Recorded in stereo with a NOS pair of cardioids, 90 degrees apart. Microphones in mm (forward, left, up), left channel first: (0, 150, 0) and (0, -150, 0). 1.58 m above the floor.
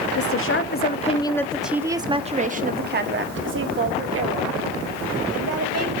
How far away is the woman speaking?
About 0.9 m.